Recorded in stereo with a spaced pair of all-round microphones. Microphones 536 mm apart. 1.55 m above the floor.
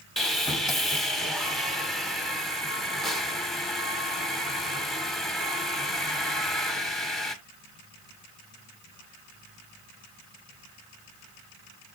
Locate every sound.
0.2 s sawing: centre (ahead or behind), 1.1 m